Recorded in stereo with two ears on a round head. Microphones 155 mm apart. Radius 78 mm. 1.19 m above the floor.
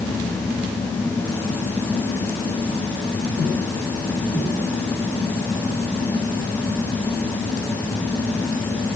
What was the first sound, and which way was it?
Only background noise.